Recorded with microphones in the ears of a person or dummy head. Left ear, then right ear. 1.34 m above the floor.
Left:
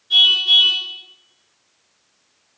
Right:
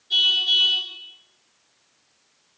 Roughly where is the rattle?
No rattle in this recording.